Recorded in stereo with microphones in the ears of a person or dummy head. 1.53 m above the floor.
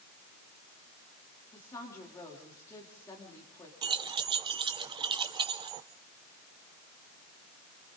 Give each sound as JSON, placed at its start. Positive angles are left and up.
{"t": 1.5, "sound": "a woman speaking", "side_deg": 20, "distance_m": 3.0}
{"t": 3.8, "sound": "keys jangling", "side_deg": -25, "distance_m": 0.5}